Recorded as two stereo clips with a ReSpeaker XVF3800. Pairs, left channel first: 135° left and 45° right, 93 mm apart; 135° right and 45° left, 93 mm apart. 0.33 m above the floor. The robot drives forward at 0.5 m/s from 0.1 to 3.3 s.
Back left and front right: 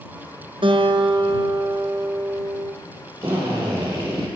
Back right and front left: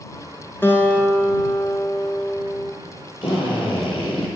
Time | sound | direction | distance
0.6 | a guitar | 65° right | 2 m
3.2 | a drill | 110° right | 7 m